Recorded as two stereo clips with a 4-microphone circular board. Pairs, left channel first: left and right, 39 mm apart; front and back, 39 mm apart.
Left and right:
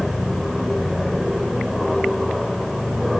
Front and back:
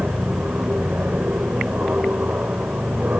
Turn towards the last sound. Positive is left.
turn(degrees=-175)